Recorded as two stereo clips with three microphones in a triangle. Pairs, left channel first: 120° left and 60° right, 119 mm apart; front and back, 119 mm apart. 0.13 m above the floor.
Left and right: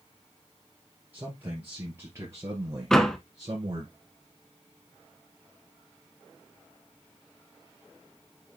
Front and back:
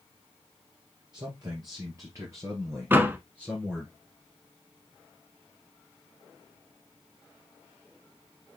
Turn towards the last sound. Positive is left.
turn(degrees=-165)